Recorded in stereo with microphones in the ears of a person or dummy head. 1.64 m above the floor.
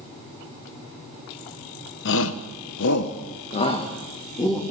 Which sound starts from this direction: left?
A shout, at 2.0 s.